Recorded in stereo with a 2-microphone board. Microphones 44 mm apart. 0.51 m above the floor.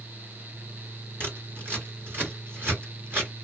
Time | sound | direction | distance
1.2 | scissors | 55° right (ahead or behind) | 2 m